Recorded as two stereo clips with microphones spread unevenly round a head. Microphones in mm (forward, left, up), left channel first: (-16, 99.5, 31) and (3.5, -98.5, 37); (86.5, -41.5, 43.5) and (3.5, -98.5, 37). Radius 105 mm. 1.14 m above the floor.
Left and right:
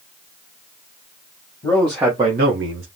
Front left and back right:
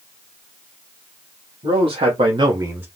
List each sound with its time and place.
1.6 s a man speaking: 175° left, 1.4 m; by 2.9 s 70° right, 1.1 m